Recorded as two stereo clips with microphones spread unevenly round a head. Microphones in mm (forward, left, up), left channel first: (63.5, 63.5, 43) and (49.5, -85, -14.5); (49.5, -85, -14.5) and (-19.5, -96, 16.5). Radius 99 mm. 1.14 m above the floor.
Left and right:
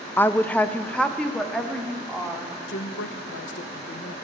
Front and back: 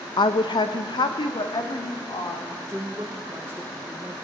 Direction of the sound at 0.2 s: 10° left.